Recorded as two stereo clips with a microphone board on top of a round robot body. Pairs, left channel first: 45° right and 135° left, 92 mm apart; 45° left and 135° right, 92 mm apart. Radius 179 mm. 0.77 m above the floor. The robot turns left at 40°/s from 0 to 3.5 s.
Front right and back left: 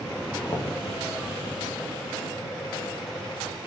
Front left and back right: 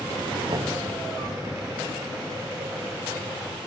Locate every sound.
0.5 s knocking: 95° right, 0.9 m; by 0.8 s 105° right, 0.9 m